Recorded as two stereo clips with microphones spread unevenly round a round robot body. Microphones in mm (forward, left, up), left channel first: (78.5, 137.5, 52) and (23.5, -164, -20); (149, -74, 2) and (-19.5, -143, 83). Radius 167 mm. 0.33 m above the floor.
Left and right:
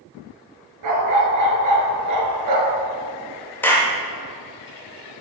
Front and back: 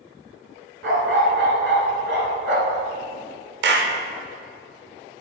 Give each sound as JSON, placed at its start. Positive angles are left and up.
{"t": 0.8, "sound": "a dog barking", "azimuth_deg": -140, "distance_m": 1.7}
{"t": 3.6, "sound": "a clap", "azimuth_deg": 180, "distance_m": 0.8}